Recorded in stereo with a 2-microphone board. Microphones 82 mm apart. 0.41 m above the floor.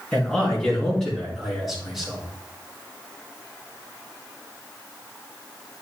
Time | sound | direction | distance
0.1 | a man speaking | 15° left (ahead or behind) | 4 m